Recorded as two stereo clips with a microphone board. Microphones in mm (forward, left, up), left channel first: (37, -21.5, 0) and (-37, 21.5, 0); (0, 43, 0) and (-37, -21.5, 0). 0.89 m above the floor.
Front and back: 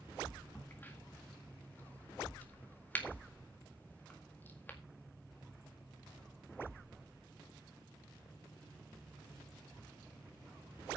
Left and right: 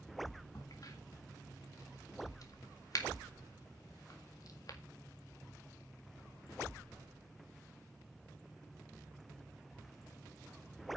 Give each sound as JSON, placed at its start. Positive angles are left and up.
{"t": 0.6, "sound": "a crack", "azimuth_deg": 35, "distance_m": 1.8}